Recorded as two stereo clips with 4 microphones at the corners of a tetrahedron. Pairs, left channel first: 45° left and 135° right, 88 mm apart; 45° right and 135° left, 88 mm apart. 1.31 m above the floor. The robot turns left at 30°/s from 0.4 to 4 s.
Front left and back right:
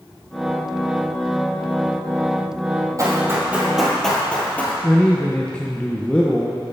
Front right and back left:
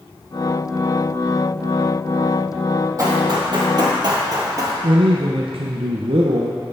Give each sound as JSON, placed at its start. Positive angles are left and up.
{"t": 3.0, "sound": "running footsteps", "azimuth_deg": 180, "distance_m": 2.5}
{"t": 4.8, "sound": "a man speaking", "azimuth_deg": 120, "distance_m": 0.6}